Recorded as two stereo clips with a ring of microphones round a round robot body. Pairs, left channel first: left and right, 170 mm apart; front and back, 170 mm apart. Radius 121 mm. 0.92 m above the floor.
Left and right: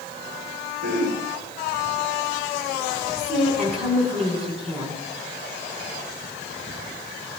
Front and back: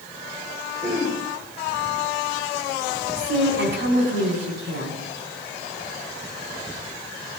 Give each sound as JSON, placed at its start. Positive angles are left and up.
{"t": 0.8, "sound": "throat clearing", "azimuth_deg": -115, "distance_m": 8.0}
{"t": 3.2, "sound": "a woman speaking", "azimuth_deg": 180, "distance_m": 6.5}